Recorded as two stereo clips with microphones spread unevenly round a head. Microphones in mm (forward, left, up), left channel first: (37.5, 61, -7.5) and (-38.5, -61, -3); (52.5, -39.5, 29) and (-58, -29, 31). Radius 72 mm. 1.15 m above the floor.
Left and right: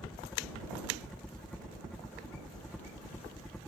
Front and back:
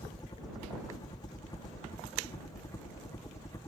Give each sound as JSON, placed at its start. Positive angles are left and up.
{"t": 0.0, "sound": "a helicopter", "azimuth_deg": -25}